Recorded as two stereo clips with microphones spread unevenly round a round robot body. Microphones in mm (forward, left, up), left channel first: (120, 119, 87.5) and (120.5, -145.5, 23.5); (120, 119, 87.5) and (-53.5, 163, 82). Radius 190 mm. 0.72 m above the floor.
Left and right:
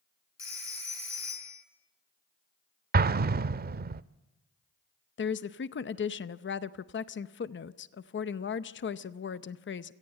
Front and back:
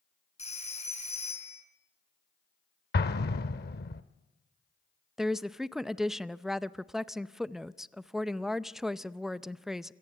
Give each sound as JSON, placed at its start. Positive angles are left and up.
{"t": 0.4, "sound": "a phone ringing", "azimuth_deg": 40, "distance_m": 7.0}
{"t": 2.9, "sound": "an explosion", "azimuth_deg": -30, "distance_m": 0.5}
{"t": 5.2, "sound": "a woman speaking", "azimuth_deg": 85, "distance_m": 0.7}